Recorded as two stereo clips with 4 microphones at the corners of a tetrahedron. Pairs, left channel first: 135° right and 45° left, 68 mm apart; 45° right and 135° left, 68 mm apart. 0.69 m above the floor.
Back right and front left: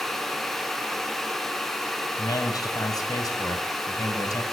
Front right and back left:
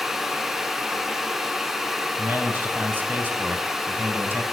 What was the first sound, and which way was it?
A man speaking, 160° right.